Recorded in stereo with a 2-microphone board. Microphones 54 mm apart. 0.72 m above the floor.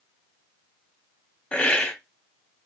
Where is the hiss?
25° left (ahead or behind), 1.0 m.